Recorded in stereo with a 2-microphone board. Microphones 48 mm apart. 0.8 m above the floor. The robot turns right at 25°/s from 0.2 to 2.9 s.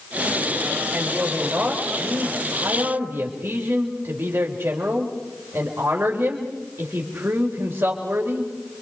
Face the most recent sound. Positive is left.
turn(degrees=-120)